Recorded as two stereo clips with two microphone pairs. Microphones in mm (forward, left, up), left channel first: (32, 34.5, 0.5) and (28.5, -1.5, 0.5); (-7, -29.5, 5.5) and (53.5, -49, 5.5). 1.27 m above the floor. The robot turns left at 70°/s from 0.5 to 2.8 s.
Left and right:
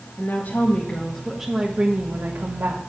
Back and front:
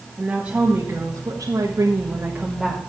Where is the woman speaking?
45° left, 1.4 m; by 2.8 s 115° right, 1.4 m.